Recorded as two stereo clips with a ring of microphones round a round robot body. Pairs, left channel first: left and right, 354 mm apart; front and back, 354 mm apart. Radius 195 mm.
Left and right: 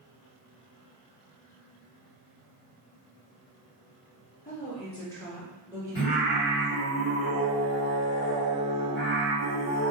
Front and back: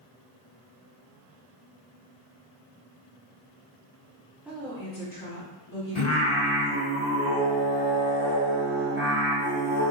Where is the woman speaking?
100° left, 0.8 m; by 6.8 s 15° right, 1.4 m.